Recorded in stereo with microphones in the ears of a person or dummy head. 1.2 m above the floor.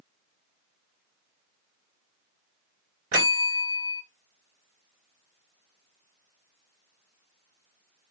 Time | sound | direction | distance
3.1 | a bell | 55° right (ahead or behind) | 2.5 m